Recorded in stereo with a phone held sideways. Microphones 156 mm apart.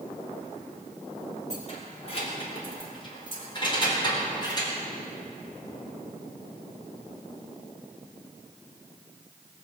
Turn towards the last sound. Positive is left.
turn(degrees=25)  # may be behind; listen again after turning